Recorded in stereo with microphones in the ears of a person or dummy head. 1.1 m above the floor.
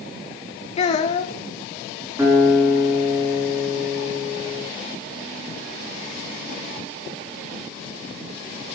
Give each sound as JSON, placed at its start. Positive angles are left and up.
{"t": 0.8, "sound": "a child speaking", "side_deg": 30, "distance_m": 1.0}
{"t": 2.2, "sound": "a guitar", "side_deg": -20, "distance_m": 4.5}